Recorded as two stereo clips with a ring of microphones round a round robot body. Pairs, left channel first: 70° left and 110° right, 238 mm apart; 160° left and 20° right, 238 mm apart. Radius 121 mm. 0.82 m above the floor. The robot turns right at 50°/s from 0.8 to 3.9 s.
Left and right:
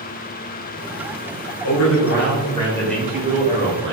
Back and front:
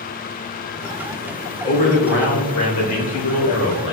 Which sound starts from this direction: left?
A man speaking, at 1.6 s.